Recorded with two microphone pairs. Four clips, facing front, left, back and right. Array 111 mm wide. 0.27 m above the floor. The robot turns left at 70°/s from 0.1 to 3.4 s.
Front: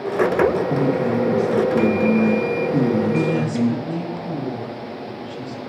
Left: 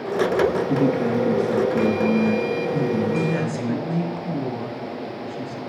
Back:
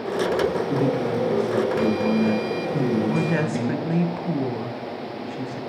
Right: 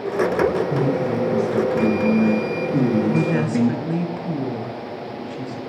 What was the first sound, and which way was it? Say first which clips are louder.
A man speaking: left 1 dB, front 3 dB; 95° left.